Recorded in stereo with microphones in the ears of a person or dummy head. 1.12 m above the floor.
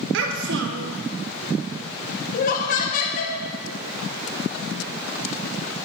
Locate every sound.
0.1 s a child speaking: 70° right (ahead or behind), 0.5 m
2.3 s laughter: 40° left (ahead or behind), 0.9 m